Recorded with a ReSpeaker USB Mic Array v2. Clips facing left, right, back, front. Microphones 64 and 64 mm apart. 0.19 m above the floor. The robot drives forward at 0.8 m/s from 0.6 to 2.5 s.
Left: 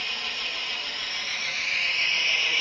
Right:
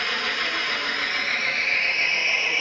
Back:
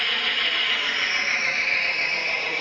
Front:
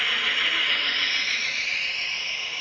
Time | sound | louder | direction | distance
0.0 | an engine running | right 8 dB, even | 85° right | 0.9 m